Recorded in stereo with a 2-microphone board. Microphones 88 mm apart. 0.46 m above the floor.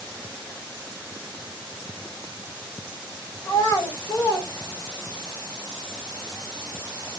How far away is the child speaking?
About 1.7 m.